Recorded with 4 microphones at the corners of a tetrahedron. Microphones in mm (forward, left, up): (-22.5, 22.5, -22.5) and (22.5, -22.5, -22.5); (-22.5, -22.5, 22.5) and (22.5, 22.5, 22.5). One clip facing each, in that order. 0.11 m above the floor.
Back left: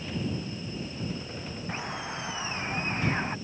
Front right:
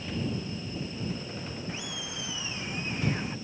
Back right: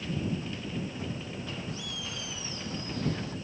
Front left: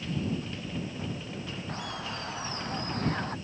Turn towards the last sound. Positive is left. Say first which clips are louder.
# back left 4 dB, front left 3 dB
turn(degrees=85)